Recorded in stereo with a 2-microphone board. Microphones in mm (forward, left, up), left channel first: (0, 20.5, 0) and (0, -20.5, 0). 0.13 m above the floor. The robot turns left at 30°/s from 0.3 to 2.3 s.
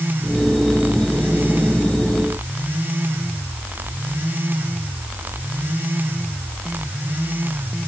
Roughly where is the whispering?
I don't hear whispering.